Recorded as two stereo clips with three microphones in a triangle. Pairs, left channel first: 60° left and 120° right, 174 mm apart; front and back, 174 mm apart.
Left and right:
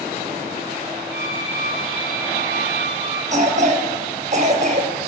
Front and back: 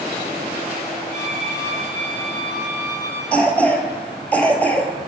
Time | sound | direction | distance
1.1 | a violin | 20° left | 5 m
3.3 | a cough | 80° right | 2.5 m